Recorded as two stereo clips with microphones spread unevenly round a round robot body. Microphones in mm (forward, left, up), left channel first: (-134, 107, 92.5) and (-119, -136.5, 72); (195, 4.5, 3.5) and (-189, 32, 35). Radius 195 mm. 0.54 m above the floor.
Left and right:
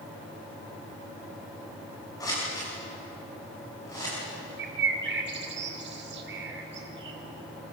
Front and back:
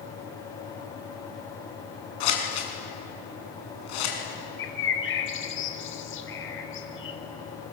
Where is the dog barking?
No dog barking in this recording.